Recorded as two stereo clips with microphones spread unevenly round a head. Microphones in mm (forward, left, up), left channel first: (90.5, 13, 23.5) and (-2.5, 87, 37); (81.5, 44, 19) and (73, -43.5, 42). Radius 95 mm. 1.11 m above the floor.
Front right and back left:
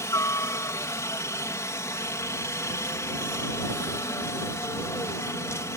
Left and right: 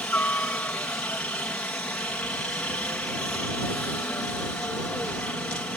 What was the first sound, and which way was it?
A helicopter, 20° left.